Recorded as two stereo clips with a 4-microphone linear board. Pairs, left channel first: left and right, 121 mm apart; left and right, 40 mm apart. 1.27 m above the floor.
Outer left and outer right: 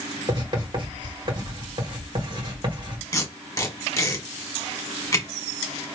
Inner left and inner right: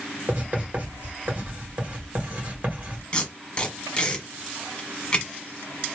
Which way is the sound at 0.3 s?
40° right (ahead or behind).